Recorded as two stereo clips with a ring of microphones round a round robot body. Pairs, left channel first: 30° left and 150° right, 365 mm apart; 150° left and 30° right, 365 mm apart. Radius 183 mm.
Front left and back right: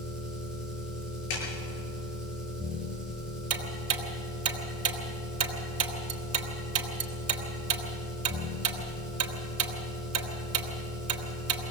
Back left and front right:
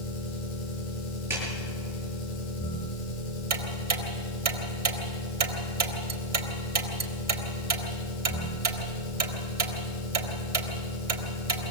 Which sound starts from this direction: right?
Ticking, at 3.5 s.